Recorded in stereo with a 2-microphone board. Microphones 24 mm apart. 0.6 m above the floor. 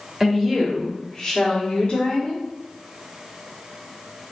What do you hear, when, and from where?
0.2 s a woman speaking: 15° right (ahead or behind), 1.2 m; by 2.4 s 50° left (ahead or behind), 1.4 m